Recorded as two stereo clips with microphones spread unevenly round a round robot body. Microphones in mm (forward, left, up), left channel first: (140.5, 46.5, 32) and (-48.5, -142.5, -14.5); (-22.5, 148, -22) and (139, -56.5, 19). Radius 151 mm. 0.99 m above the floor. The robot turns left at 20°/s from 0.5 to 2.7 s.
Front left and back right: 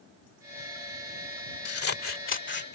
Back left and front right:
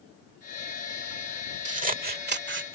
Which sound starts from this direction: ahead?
Scissors, at 1.6 s.